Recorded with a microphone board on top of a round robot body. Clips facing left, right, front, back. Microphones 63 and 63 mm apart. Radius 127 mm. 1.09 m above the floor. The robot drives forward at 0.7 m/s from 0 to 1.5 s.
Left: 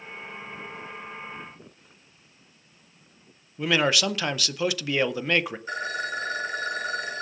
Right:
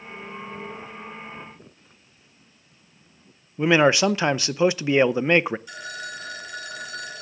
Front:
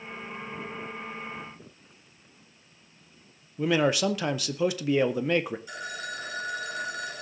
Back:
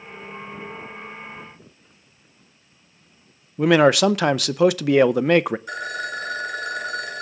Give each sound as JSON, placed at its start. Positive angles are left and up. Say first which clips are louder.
{"t": 3.6, "sound": "a man speaking", "louder": "right 6 dB, back 9 dB", "azimuth_deg": -155, "distance_m": 0.6}
{"t": 5.7, "sound": "a phone ringing", "louder": "left 5 dB, back 8 dB", "azimuth_deg": 140, "distance_m": 2.5}